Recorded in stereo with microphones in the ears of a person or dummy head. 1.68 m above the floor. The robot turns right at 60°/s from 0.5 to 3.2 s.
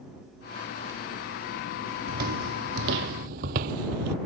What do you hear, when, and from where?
2.1 s footsteps: 50° right (ahead or behind); by 4.2 s 45° right (ahead or behind)